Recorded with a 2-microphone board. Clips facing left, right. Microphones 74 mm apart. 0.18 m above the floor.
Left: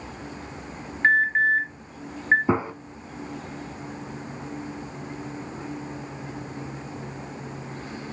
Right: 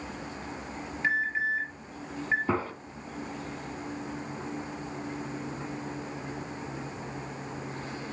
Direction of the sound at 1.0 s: 50° left (ahead or behind).